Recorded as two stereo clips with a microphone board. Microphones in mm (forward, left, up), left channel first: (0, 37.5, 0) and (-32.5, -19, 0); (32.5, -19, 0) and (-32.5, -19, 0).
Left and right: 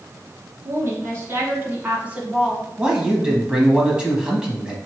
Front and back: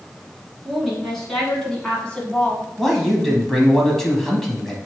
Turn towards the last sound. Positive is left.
turn(degrees=-75)